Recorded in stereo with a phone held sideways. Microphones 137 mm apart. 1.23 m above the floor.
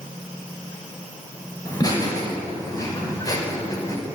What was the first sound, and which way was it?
Laughter, 30° left (ahead or behind).